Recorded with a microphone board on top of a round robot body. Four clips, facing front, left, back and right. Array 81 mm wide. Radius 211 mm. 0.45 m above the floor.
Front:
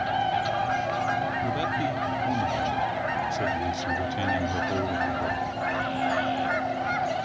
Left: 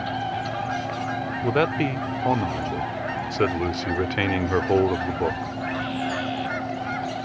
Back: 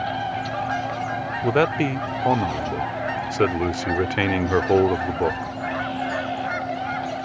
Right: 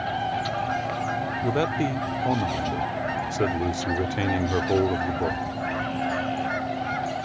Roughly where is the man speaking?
Behind left.